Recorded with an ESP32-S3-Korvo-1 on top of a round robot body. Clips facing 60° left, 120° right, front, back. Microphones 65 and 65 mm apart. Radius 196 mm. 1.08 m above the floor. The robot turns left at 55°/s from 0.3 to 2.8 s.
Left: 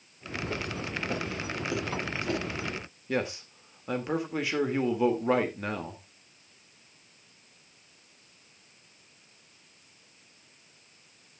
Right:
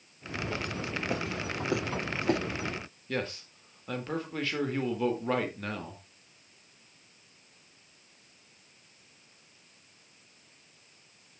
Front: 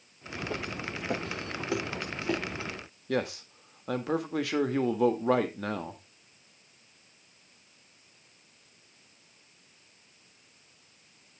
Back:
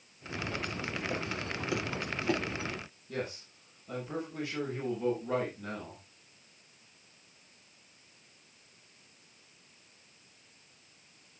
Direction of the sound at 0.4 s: Straight ahead.